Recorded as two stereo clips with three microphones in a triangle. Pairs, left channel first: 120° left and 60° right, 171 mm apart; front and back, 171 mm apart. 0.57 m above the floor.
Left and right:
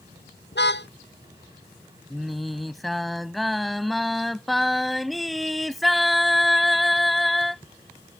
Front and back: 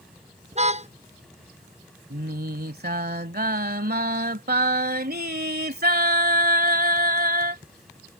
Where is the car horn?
130° left.